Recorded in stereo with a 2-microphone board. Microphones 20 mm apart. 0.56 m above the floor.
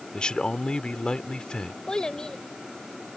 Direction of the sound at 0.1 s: 50° left (ahead or behind).